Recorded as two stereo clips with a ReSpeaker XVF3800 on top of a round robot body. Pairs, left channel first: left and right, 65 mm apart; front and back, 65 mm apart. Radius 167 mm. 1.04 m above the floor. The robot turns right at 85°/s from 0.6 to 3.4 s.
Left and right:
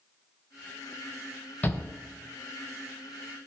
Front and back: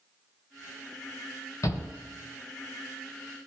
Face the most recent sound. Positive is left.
turn(degrees=175)